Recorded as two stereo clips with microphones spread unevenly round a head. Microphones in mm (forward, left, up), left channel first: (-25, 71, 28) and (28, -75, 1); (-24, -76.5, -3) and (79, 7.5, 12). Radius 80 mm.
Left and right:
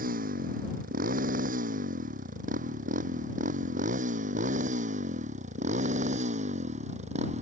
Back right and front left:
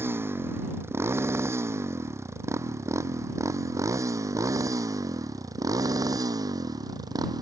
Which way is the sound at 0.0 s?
35° right.